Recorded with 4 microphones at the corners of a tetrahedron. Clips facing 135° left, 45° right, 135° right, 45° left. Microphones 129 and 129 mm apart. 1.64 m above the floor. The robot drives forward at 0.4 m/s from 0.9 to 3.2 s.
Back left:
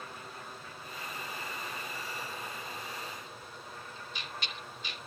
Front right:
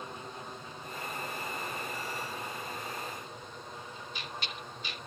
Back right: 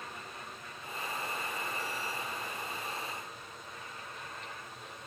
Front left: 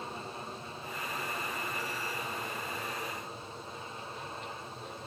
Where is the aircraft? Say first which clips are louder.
Front right 3 dB, front left 5 dB; 5° left; by 5.1 s 15° left.